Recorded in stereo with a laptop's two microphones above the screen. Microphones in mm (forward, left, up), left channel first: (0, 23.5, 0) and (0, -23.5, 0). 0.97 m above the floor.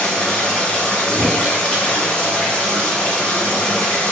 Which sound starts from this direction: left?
A drawer, at 1.1 s.